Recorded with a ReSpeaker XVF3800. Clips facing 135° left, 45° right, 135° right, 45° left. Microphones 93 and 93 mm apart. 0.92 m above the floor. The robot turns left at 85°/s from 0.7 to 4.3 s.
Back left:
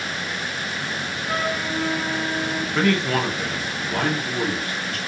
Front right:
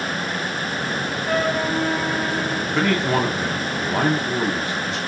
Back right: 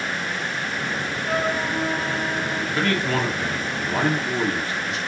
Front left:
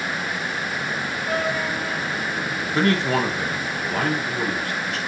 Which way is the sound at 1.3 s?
50° right.